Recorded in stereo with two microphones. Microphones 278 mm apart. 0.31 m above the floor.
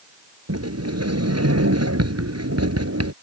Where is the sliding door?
75° right (ahead or behind).